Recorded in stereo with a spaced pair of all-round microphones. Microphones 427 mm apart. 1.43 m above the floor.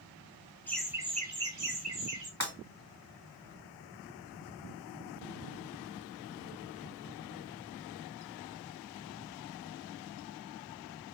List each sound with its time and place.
0.7 s laughter: 5° left (ahead or behind), 0.9 m; by 2.3 s 85° right, 0.7 m
2.4 s breaking glass: 40° right (ahead or behind), 2.0 m